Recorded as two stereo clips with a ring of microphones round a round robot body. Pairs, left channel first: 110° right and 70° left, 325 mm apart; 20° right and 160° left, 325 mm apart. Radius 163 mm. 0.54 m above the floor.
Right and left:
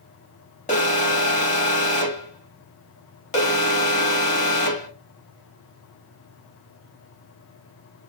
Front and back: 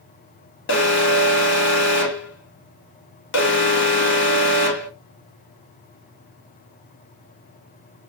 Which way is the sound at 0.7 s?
55° right.